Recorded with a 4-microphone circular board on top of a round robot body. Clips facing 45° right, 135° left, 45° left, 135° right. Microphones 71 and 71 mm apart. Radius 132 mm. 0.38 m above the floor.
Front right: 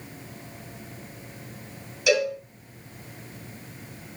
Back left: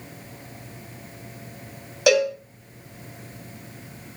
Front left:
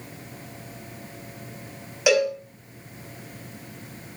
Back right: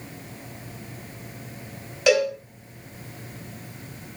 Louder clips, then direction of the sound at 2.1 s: Back left 4 dB, back right 1 dB; 125° left.